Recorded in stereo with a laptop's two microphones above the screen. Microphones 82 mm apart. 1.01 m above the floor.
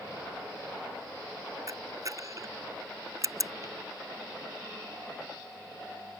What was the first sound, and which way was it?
A camera shutter, 45° right (ahead or behind).